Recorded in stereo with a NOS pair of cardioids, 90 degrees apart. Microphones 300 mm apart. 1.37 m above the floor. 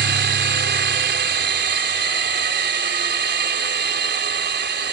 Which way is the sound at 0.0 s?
35° right.